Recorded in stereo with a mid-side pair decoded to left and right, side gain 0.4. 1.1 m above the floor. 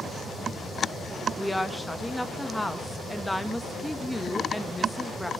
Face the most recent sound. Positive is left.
turn(degrees=5)